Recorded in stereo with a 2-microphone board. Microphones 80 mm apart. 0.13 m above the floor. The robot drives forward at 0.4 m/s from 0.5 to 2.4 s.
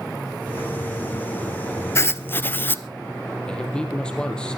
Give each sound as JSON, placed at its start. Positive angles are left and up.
{"t": 1.9, "sound": "writing", "side_deg": 35, "distance_m": 0.6}
{"t": 3.5, "sound": "a man speaking", "side_deg": 10, "distance_m": 4.0}